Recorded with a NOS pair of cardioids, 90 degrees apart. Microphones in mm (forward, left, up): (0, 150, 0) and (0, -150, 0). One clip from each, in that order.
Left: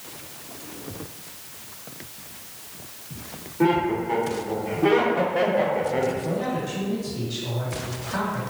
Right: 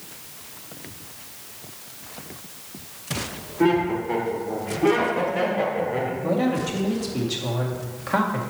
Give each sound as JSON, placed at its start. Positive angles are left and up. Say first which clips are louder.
{"t": 3.6, "sound": "laughter", "louder": "right 1 dB", "azimuth_deg": -5, "distance_m": 3.0}
{"t": 6.2, "sound": "a man speaking", "louder": "right 3 dB", "azimuth_deg": -60, "distance_m": 1.9}